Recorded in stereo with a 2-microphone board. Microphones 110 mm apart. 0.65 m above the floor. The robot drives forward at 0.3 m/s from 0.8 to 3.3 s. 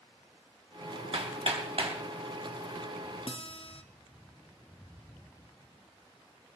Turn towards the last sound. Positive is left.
turn(degrees=50)  # may be behind; listen again after turning